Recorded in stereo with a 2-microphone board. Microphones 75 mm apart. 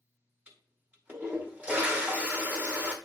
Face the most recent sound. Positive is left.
turn(degrees=-15)  # may be behind; listen again after turning